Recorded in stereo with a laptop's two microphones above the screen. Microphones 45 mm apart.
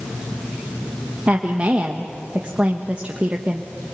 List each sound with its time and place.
1.3 s a woman speaking: 30° right (ahead or behind), 1.1 m